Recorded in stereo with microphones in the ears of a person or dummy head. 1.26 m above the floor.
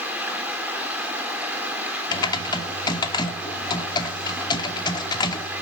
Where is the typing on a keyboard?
30° left (ahead or behind), 2 m.